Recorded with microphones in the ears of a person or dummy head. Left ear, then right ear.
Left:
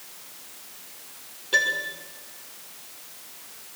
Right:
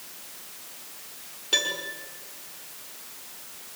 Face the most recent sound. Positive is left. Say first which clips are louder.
# left 3 dB
turn(degrees=-10)  # may be behind; listen again after turning